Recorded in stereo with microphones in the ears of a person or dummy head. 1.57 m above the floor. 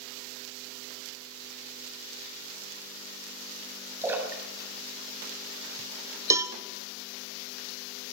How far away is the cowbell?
About 1.2 m.